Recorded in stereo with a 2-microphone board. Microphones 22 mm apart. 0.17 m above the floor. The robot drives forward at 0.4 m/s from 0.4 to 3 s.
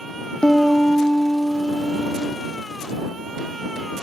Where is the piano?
55° left (ahead or behind), 1.9 m; by 2.4 s 75° left (ahead or behind), 1.6 m.